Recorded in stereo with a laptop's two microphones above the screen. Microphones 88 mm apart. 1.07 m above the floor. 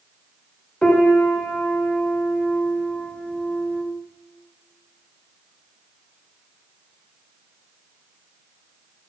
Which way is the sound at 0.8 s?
10° left (ahead or behind).